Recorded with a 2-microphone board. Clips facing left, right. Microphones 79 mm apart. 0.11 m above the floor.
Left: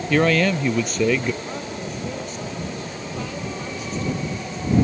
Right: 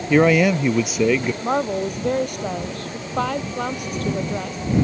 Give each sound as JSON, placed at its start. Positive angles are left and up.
{"t": 0.1, "sound": "a man speaking", "side_deg": -15}
{"t": 1.4, "sound": "a woman speaking", "side_deg": -65}